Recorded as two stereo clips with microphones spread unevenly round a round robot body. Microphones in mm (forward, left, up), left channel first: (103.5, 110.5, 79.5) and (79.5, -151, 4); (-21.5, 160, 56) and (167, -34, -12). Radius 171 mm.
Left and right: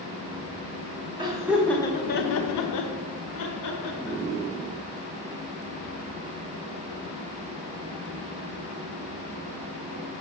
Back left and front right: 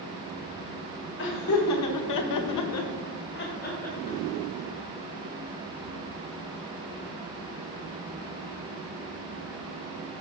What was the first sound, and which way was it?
Laughter, 165° right.